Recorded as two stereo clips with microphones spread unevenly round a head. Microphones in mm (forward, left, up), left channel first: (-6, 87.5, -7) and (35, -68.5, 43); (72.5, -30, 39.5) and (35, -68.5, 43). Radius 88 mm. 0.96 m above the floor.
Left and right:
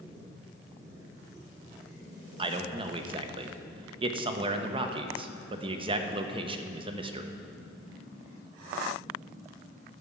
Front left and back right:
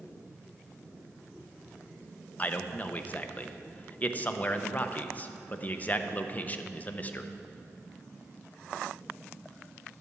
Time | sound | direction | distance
2.4 | a man speaking | 10° right | 0.9 m